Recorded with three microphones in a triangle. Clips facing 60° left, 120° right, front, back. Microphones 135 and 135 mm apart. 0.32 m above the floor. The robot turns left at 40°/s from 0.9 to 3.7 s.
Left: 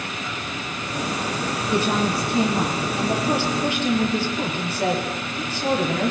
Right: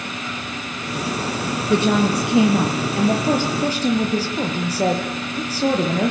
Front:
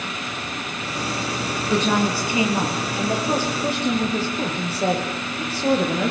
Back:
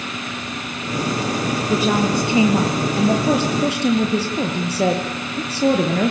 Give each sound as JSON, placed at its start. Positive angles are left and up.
{"t": 1.7, "sound": "a woman speaking", "azimuth_deg": -90, "distance_m": 6.0}